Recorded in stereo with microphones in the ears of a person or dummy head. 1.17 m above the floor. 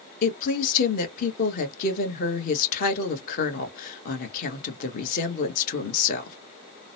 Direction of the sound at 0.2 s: 45° left (ahead or behind).